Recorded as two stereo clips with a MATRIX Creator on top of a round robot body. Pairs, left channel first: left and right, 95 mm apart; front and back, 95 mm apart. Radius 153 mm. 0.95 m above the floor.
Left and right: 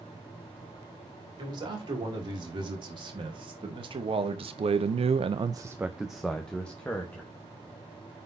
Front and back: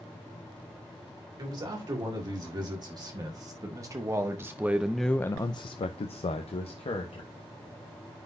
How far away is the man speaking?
About 3 m.